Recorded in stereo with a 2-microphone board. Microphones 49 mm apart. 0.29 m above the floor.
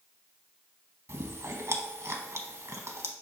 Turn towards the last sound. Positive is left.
turn(degrees=-75)  # may be behind; listen again after turning